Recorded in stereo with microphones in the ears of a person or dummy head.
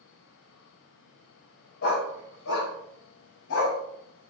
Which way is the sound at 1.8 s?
60° left (ahead or behind).